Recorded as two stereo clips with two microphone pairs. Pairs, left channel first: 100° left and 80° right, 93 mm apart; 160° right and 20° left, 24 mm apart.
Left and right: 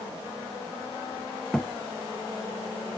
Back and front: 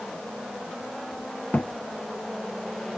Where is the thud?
175° right.